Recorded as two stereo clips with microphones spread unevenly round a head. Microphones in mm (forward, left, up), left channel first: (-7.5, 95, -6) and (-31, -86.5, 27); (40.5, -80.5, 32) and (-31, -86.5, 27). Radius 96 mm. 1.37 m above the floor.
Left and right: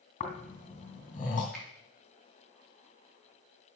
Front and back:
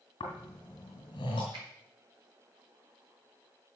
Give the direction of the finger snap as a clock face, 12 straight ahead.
6 o'clock.